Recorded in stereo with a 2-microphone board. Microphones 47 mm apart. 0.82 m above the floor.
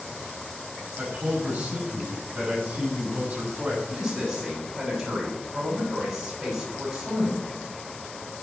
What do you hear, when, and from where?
1.0 s a man speaking: 35° right (ahead or behind), 7 m
3.9 s a man speaking: 10° right (ahead or behind), 6.5 m